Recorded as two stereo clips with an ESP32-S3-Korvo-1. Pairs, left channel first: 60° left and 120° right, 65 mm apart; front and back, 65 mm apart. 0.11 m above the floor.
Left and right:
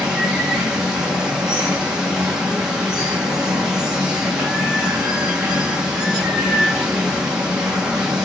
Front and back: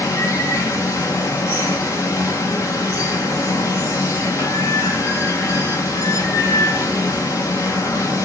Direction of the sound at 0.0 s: 40° right.